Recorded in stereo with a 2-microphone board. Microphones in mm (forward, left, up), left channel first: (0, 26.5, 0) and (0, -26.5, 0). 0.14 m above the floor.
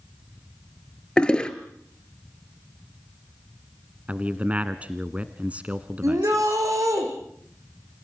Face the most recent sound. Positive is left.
turn(degrees=-75)  # may be behind; listen again after turning